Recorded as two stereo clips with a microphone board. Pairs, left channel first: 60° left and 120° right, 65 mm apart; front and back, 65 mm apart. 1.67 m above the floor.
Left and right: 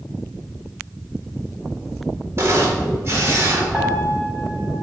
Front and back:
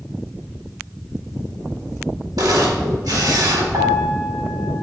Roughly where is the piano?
Behind.